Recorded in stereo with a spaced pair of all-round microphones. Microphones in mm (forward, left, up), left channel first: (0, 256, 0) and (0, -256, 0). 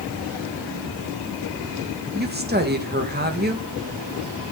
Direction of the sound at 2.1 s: 20° right (ahead or behind).